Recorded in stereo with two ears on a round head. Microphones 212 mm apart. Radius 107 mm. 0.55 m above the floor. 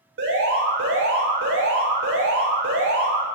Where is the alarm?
60° right (ahead or behind), 4.5 m.